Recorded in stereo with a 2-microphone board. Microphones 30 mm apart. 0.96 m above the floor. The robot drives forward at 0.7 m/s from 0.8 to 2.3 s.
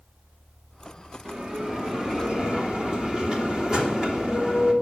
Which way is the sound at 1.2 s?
25° right (ahead or behind).